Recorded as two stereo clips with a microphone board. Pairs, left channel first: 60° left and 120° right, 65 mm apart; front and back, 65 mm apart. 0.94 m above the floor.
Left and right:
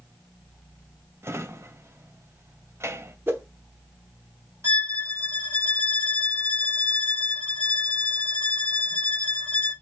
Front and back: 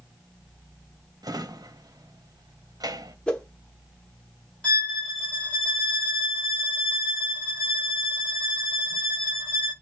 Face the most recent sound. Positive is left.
turn(degrees=-65)